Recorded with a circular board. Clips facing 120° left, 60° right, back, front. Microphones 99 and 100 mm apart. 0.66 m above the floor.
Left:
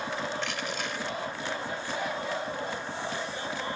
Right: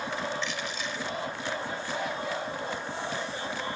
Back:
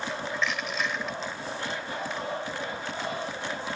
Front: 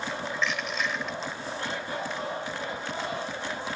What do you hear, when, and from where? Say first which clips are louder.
0.3 s crushing: left 1 dB, even; 90° left, 2.0 m